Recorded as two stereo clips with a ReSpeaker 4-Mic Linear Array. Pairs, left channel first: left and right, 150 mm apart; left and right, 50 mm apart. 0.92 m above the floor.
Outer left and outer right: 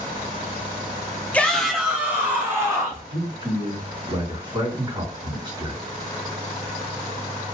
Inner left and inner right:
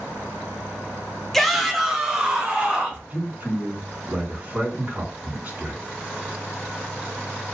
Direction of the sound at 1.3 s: 10° left (ahead or behind).